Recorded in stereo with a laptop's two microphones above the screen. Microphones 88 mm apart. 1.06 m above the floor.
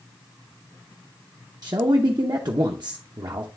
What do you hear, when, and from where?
1.6 s a man speaking: 50° right (ahead or behind), 0.6 m